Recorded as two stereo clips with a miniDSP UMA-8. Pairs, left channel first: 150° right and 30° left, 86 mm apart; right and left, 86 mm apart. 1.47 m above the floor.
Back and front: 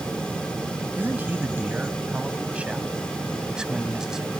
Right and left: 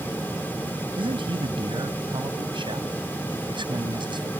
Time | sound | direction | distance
1.0 | a man speaking | 100° left | ?